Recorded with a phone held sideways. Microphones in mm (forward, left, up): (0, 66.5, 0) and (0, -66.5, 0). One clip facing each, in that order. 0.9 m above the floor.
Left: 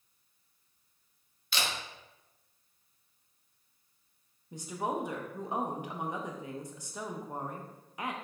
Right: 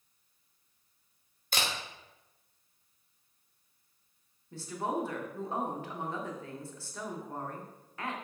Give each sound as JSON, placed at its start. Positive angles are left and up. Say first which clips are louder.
{"t": 1.5, "sound": "a camera shutter", "louder": "right 1 dB", "side_deg": -45, "distance_m": 0.9}
{"t": 4.5, "sound": "a woman speaking", "louder": "even", "side_deg": 15, "distance_m": 0.6}